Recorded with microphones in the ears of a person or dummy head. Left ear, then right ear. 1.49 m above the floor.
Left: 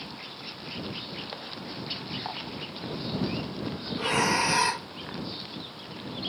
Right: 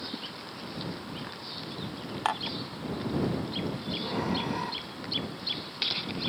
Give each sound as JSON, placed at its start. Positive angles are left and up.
{"t": 2.2, "sound": "dishes clattering", "side_deg": -55}
{"t": 4.0, "sound": "breathing", "side_deg": 45}